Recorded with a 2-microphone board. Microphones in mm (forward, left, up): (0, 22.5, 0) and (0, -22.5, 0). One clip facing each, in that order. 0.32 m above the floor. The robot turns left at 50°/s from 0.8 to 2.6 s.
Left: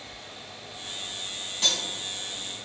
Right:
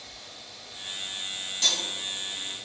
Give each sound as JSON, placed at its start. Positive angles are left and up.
{"t": 1.6, "sound": "cutlery clinking", "side_deg": 25, "distance_m": 1.6}